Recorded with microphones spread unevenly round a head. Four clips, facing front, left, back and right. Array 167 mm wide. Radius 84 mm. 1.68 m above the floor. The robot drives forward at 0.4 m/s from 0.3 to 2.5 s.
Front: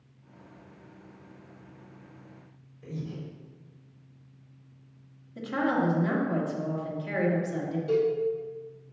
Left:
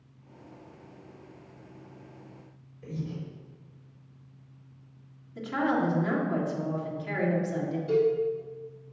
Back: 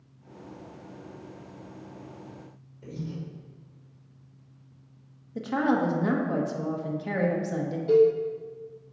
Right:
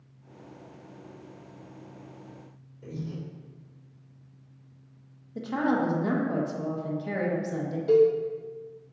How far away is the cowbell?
About 3 m.